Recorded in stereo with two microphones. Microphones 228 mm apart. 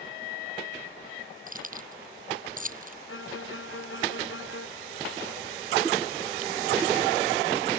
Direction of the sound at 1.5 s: 35° right (ahead or behind).